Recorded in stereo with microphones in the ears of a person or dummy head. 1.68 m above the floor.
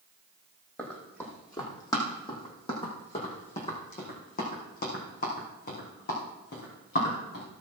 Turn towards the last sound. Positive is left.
turn(degrees=65)  # may be behind; listen again after turning